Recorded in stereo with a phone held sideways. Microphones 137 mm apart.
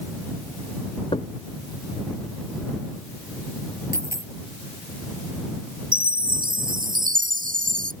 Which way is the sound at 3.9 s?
20° right (ahead or behind).